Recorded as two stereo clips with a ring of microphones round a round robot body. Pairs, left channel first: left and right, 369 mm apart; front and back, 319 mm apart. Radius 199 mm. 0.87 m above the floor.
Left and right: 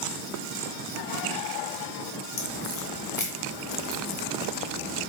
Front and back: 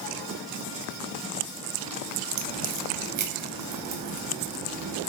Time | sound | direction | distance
2.4 | a crack | 155° left | 0.8 m